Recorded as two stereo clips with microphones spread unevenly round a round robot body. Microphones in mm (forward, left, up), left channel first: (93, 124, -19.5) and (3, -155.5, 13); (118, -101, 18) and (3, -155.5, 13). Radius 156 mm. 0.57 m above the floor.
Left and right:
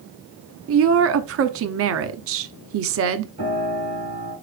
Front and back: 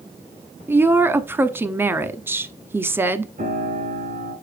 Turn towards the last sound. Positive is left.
turn(degrees=180)